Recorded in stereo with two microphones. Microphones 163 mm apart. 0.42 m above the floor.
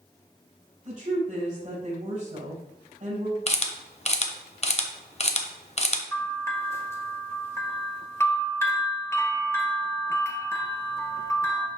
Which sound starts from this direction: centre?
A bell, at 6.1 s.